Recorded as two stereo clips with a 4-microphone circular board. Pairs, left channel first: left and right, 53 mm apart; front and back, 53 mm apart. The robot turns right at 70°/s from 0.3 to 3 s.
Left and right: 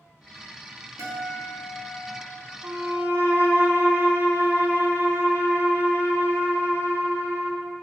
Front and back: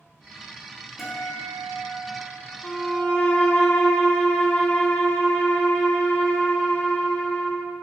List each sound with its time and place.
1.0 s a guitar: 95° right, 1.3 m; by 3.6 s 45° left, 1.3 m
2.6 s a violin: 75° right, 1.0 m; by 7.6 s 50° right, 1.0 m